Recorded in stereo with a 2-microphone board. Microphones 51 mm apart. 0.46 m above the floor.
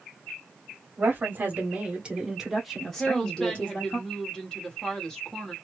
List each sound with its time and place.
1.0 s a woman speaking: 40° right (ahead or behind), 1.5 m; by 4.0 s 35° left (ahead or behind), 1.4 m
3.0 s a woman speaking: 15° left (ahead or behind), 1.3 m